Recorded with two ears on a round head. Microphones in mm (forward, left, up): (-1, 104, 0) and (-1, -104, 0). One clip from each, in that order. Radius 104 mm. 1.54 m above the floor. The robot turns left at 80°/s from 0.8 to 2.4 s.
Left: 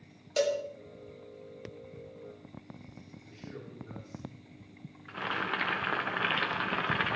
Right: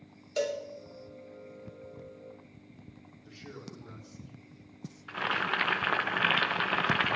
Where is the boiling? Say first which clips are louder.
Right 3 dB; 25° right (ahead or behind), 0.7 m.